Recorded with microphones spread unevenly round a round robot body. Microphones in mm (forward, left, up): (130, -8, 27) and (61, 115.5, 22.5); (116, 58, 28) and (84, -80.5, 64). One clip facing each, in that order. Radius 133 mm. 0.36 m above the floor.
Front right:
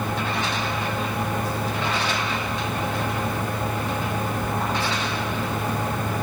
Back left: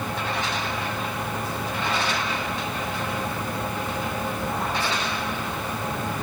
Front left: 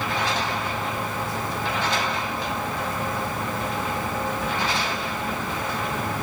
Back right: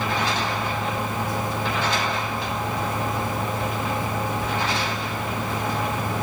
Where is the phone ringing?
I don't hear a phone ringing.